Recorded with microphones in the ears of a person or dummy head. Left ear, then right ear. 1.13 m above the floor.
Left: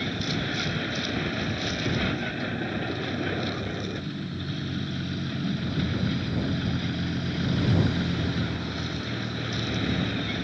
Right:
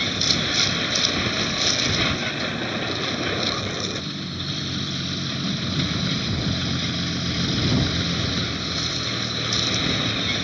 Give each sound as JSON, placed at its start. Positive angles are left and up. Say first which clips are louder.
{"t": 0.0, "sound": "a vehicle", "louder": "right 9 dB", "side_deg": -35}